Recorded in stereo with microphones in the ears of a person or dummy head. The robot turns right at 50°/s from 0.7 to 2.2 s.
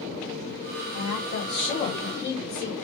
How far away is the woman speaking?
About 1.9 m.